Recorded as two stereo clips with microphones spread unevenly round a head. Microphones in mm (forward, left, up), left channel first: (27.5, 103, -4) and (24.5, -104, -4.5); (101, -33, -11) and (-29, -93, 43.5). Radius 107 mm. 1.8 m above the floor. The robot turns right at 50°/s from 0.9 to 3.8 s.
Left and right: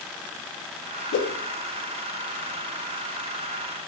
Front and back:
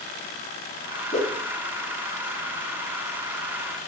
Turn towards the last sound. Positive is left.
turn(degrees=-135)